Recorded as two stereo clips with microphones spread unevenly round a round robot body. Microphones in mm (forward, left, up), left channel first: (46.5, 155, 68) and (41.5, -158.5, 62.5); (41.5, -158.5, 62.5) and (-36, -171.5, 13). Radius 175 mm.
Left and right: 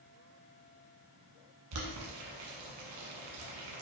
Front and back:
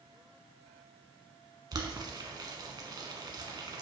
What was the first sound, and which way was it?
Boiling, 115° right.